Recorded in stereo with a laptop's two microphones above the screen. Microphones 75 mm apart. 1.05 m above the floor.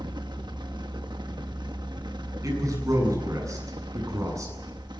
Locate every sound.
0.0 s a fan: 75° right (ahead or behind), 1.2 m
2.4 s a man speaking: 45° right (ahead or behind), 8 m